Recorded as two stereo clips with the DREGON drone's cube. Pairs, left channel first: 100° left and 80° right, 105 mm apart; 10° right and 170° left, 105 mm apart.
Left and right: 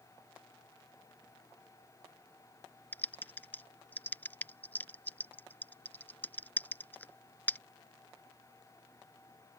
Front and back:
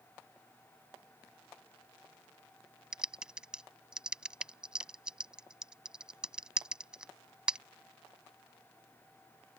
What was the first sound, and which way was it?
Typing on a keyboard, 105° left.